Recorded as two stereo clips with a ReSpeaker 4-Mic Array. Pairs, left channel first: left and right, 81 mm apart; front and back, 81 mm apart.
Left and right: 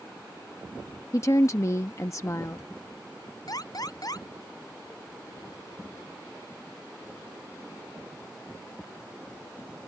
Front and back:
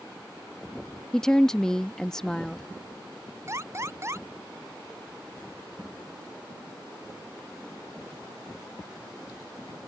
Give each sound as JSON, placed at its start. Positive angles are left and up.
{"t": 1.1, "sound": "a woman speaking", "azimuth_deg": 80}
{"t": 3.5, "sound": "an alarm", "azimuth_deg": 125}